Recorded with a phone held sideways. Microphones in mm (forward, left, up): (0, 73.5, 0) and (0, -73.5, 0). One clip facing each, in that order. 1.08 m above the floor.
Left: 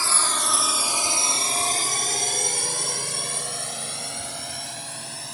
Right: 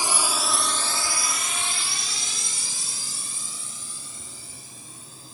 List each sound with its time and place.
0.0 s a drone: 20° right (ahead or behind); by 5.3 s 80° left